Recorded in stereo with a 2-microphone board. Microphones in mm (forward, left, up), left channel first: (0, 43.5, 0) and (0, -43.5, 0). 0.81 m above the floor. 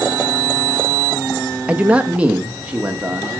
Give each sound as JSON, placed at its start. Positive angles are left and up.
{"t": 1.7, "sound": "a man speaking", "side_deg": -15, "distance_m": 0.7}